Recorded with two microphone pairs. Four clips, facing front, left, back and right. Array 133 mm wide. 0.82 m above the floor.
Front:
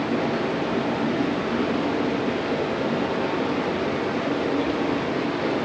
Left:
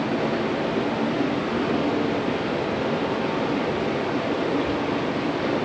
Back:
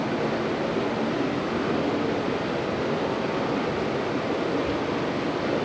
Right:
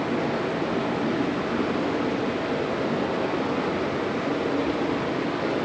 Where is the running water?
20° right, 8 m.